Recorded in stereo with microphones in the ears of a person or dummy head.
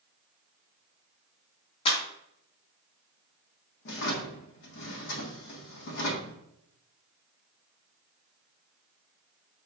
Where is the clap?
30° left (ahead or behind), 2 m.